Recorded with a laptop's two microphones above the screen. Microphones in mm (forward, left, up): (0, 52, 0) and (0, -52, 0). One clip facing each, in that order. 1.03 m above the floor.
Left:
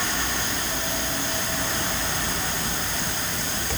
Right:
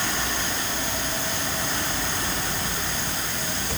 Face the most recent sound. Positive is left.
No sound to turn to.